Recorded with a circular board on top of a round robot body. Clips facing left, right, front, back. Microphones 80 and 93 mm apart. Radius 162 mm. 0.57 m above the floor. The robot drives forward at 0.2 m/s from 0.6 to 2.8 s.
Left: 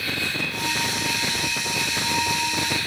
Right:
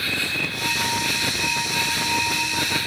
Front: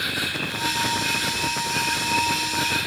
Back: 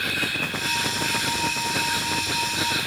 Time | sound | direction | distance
0.0 | an insect | 75° right | 0.9 m